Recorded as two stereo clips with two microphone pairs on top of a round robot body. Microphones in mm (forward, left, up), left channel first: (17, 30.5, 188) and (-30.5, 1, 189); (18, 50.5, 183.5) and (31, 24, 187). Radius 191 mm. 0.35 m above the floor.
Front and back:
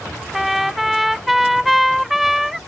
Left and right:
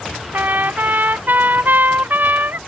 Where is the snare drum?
I don't hear a snare drum.